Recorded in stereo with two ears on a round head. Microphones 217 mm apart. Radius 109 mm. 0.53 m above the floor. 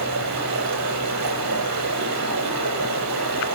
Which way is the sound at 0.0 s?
85° right.